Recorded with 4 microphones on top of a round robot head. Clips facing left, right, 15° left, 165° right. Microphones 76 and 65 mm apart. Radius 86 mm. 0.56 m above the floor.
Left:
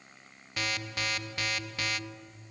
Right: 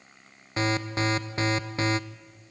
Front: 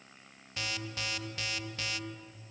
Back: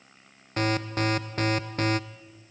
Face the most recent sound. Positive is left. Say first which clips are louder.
# right 8 dB, back 12 dB
turn(degrees=-140)